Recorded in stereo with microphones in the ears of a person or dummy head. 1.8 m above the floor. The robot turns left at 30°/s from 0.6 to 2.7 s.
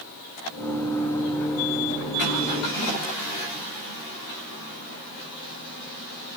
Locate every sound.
Only background noise.